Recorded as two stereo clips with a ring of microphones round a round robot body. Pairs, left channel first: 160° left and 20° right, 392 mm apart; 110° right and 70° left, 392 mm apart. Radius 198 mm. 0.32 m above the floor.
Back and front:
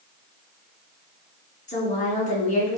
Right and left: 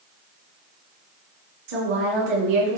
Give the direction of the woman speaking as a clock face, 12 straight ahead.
9 o'clock.